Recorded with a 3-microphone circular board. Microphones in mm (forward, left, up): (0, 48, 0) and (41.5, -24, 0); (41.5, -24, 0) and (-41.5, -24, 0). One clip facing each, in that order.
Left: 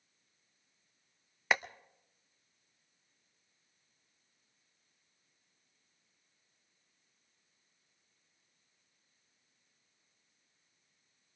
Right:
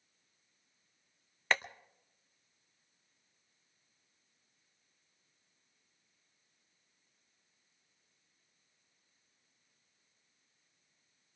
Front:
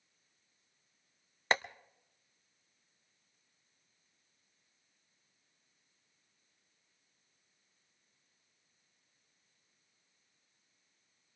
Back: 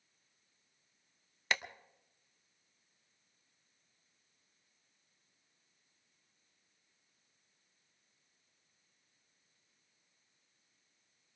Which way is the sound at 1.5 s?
45° left.